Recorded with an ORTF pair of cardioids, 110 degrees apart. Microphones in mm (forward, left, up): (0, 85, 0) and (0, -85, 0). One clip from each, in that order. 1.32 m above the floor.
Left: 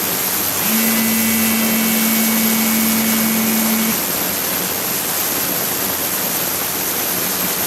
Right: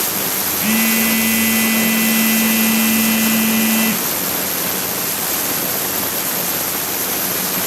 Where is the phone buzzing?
30° right, 0.5 m.